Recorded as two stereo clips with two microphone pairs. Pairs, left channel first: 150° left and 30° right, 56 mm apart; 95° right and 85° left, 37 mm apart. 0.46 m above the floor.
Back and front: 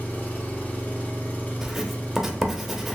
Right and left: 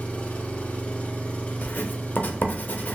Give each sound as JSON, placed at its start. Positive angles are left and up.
{"t": 0.0, "sound": "an engine running", "azimuth_deg": -155, "distance_m": 0.7}
{"t": 1.6, "sound": "writing", "azimuth_deg": -120, "distance_m": 0.6}